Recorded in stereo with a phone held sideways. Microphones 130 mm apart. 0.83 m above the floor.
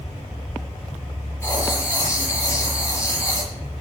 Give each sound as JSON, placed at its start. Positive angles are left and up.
{"t": 1.4, "sound": "writing", "side_deg": 20, "distance_m": 7.5}